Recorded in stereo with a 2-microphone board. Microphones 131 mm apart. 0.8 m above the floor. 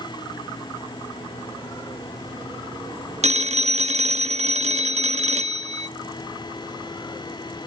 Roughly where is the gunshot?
I don't hear a gunshot.